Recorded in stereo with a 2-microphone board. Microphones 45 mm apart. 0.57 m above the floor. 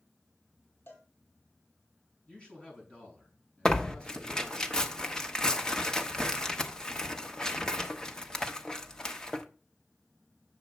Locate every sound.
0.9 s a cowbell: 70° left (ahead or behind), 2.5 m
2.3 s a man speaking: 25° left (ahead or behind), 5.5 m
3.6 s tearing paper: 15° left (ahead or behind), 1.0 m